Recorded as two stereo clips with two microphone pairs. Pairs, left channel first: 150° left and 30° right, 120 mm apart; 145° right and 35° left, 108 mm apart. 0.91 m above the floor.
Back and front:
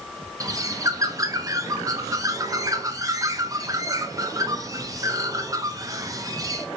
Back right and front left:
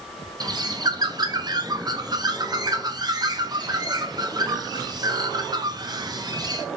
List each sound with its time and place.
0.4 s a bird: 20° left, 0.5 m